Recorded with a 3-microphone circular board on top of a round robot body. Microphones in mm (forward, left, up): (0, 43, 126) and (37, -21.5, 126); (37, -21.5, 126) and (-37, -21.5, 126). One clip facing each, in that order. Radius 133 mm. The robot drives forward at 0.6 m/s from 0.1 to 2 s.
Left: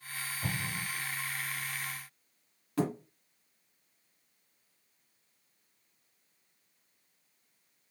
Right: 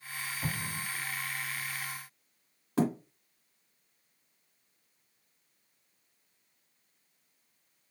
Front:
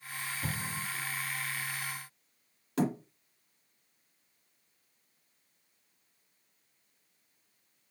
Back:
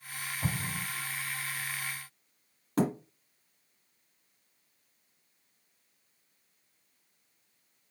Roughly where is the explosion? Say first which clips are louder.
Left 2 dB, back 4 dB; behind right.